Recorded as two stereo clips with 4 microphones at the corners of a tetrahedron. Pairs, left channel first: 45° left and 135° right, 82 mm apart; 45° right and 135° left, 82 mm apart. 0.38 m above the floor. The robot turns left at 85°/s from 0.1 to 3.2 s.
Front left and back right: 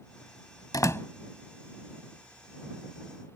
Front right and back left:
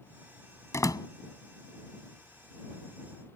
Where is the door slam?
5° left; by 1.1 s 25° right.